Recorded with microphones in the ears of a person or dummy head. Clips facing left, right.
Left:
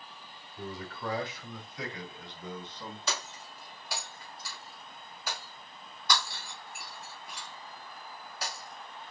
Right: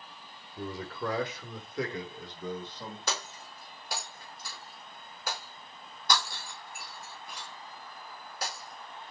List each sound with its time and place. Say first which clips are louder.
0.6 s a man speaking: right 4 dB; 70° right (ahead or behind), 1.5 m; by 3.0 s 35° right (ahead or behind), 2.5 m
3.1 s breaking glass: right 1 dB; 45° right (ahead or behind), 3 m